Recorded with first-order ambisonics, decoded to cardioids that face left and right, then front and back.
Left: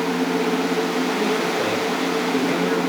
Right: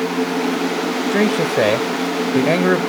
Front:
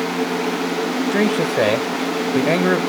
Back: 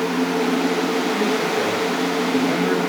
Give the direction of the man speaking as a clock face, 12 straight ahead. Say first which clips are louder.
Right 4 dB, front 2 dB; 2 o'clock.